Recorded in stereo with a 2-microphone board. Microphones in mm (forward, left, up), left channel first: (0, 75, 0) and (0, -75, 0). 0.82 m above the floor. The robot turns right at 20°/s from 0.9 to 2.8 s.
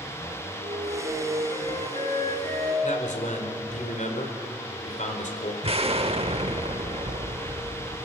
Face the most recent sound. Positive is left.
turn(degrees=-45)  # may be behind; listen again after turning